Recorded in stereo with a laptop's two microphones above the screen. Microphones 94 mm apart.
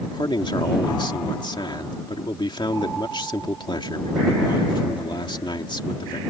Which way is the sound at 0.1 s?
55° left (ahead or behind).